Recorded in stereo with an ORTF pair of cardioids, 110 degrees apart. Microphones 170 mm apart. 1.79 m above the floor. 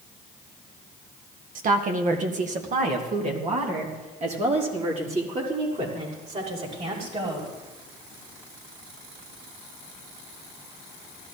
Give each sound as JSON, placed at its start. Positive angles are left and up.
{"t": 1.6, "sound": "a woman speaking", "azimuth_deg": -55, "distance_m": 1.7}